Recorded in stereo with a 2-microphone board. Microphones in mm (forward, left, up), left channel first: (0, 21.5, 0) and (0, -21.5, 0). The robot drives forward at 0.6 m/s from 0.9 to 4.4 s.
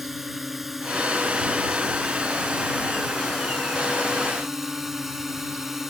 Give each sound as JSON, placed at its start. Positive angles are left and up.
{"t": 0.0, "sound": "a drone", "side_deg": -10}